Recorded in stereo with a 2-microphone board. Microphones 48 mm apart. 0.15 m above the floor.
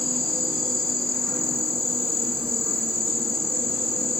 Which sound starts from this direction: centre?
An insect, at 0.0 s.